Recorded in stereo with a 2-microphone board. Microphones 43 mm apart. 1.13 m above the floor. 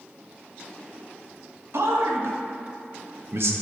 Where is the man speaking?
65° right (ahead or behind), 1.0 m.